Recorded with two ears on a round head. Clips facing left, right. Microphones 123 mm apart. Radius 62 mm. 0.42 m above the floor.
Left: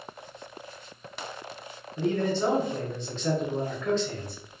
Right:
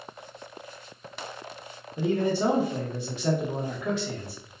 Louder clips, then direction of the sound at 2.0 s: Right 1 dB; 10° right (ahead or behind).